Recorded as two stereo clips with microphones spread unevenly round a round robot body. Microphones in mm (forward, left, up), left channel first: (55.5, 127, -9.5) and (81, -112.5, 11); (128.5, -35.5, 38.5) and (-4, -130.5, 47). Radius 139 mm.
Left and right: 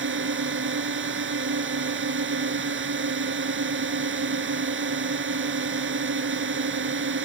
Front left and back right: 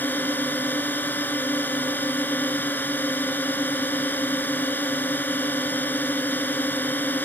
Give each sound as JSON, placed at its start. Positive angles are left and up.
{"t": 0.0, "sound": "a drone", "azimuth_deg": -45}